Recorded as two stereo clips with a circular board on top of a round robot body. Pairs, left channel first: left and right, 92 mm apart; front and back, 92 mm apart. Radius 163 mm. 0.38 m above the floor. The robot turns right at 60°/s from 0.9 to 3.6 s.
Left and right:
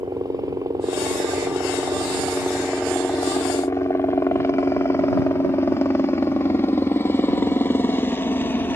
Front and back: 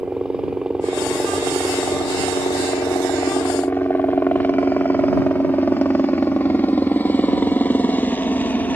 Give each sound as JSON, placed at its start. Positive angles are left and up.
{"t": 0.0, "sound": "a helicopter", "azimuth_deg": -100}